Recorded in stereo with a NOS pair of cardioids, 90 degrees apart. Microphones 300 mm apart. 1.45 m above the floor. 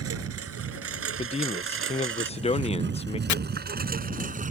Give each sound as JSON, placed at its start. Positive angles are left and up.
{"t": 0.0, "sound": "a lawn mower", "azimuth_deg": -55}
{"t": 1.2, "sound": "a man speaking", "azimuth_deg": 20}
{"t": 3.3, "sound": "chopping", "azimuth_deg": 70}